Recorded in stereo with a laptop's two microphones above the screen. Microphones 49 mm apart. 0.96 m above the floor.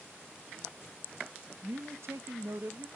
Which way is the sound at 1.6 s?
65° right (ahead or behind).